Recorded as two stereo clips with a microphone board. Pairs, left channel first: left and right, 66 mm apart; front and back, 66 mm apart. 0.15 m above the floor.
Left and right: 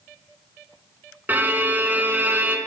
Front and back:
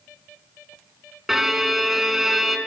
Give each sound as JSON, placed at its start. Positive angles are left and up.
{"t": 1.3, "sound": "a violin", "azimuth_deg": -100, "distance_m": 0.7}